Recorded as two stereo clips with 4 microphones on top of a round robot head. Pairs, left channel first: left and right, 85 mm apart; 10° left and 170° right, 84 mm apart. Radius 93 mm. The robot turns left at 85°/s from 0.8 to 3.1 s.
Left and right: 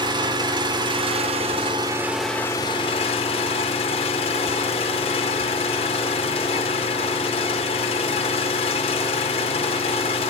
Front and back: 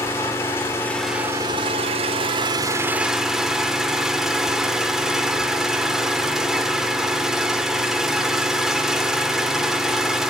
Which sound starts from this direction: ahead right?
An engine running, at 0.0 s.